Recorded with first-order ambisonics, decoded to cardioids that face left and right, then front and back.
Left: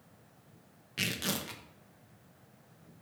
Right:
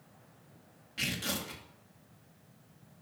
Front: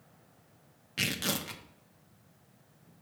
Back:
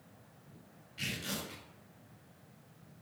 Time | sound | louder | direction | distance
1.0 | tearing paper | left 1 dB, front 7 dB | 25° left | 1.1 m